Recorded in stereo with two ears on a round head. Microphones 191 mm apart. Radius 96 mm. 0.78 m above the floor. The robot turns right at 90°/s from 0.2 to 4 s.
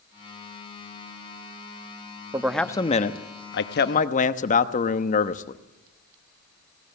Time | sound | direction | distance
2.3 | a man speaking | 20° right | 0.9 m